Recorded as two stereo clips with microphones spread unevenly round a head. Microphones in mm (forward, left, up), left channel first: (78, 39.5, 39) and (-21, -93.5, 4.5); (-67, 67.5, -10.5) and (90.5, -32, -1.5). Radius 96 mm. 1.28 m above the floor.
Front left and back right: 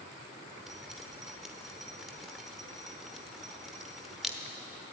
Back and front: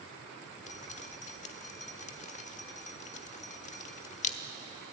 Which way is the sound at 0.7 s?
125° left.